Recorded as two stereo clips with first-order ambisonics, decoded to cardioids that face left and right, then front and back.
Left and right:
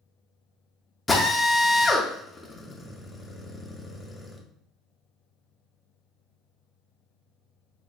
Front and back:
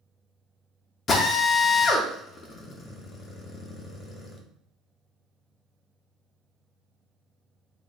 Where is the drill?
15° left, 0.5 m.